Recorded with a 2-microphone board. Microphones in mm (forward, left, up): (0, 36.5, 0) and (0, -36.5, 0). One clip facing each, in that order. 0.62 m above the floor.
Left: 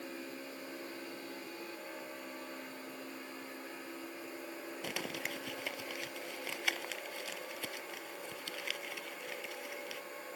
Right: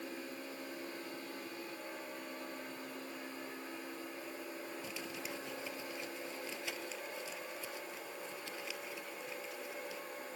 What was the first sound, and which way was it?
Crumpling, 70° left (ahead or behind).